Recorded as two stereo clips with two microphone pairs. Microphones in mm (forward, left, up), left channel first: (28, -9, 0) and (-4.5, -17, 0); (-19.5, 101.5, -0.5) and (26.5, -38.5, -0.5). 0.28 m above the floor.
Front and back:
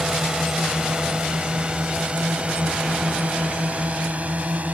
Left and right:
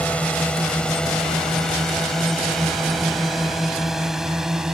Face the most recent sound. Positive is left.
turn(degrees=-155)